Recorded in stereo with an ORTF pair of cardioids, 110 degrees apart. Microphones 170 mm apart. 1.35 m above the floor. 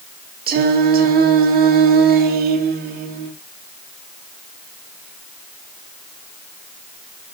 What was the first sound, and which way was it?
Singing, 60° right.